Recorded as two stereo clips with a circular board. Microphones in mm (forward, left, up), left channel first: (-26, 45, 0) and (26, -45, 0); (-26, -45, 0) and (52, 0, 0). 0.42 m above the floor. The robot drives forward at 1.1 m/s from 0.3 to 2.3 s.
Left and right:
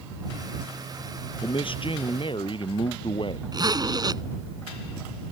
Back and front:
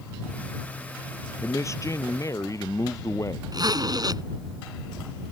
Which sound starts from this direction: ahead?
A zipper, at 3.5 s.